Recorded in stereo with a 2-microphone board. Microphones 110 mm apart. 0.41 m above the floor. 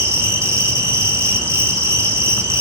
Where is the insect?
30° right (ahead or behind), 1.6 m.